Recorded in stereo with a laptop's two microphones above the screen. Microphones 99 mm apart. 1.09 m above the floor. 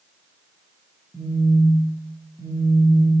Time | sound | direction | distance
1.1 | a phone buzzing | 40° right (ahead or behind) | 1.0 m